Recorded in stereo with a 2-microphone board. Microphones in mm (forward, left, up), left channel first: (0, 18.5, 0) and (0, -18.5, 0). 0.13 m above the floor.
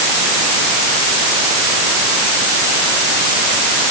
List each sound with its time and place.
Only background noise.